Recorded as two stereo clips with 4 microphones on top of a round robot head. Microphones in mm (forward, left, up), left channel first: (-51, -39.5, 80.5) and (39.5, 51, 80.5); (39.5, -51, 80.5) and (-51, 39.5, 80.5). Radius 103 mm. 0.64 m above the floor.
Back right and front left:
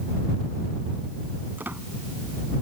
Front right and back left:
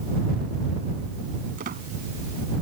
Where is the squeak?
120° left.